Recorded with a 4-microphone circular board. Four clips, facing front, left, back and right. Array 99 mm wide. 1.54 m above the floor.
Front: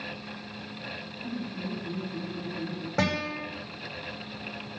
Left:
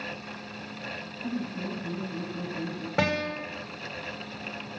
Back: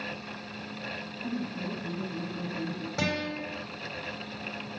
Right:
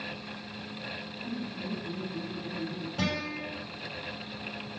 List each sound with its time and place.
1.2 s laughter: 110° left, 8 m
3.0 s a guitar: 60° left, 7.5 m